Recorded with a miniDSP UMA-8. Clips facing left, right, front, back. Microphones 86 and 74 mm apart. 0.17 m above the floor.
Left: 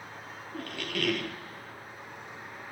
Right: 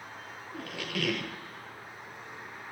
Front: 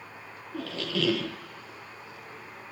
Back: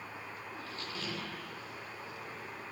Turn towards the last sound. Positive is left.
turn(degrees=0)